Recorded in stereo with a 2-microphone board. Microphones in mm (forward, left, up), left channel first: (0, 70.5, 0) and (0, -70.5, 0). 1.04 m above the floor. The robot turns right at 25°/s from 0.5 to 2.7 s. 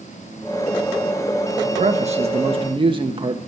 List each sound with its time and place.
1.6 s a man speaking: 55° right (ahead or behind), 1.3 m; by 3.4 s 35° right (ahead or behind), 1.3 m